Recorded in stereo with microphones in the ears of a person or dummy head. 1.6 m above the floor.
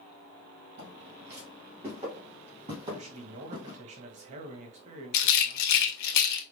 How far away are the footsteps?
About 2 m.